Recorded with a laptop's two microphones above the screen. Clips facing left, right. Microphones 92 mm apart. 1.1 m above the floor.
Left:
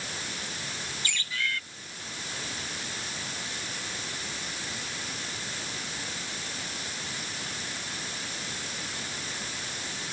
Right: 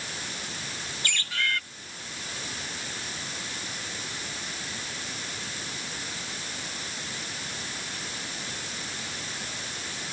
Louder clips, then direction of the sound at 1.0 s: Right 4 dB; 70° right (ahead or behind).